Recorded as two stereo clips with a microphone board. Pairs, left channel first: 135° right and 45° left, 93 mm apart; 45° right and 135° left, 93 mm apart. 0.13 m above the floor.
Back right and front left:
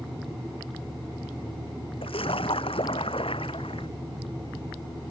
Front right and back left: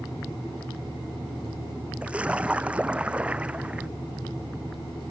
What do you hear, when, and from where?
2.0 s a splash: 145° right